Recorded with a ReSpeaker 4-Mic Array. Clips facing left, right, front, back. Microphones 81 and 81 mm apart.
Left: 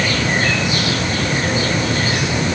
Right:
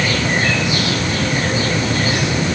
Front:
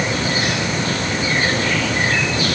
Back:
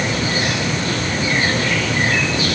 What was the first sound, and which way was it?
Only background noise.